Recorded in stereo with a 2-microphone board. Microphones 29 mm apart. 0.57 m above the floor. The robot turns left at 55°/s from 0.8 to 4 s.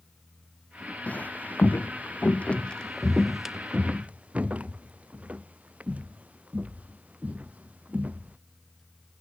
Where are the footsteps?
50° left (ahead or behind); by 8.4 s 50° right (ahead or behind).